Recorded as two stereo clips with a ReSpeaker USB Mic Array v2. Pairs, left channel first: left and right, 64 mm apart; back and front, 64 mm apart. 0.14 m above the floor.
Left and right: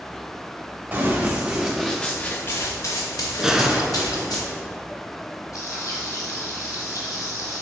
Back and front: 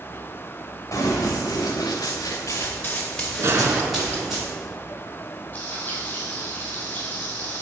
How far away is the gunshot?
About 0.7 m.